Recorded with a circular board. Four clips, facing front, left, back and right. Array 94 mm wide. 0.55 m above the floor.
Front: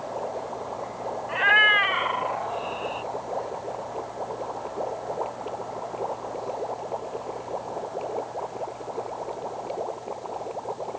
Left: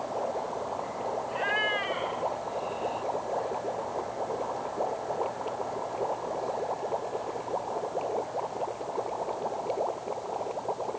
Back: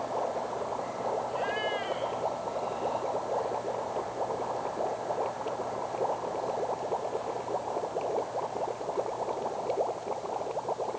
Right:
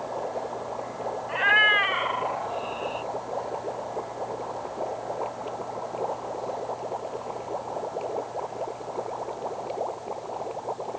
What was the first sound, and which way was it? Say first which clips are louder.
A cat meowing: right 10 dB, front 9 dB; 30° right.